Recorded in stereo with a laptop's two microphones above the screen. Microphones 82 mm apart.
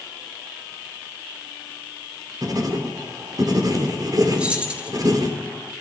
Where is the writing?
50° right (ahead or behind), 2.5 m.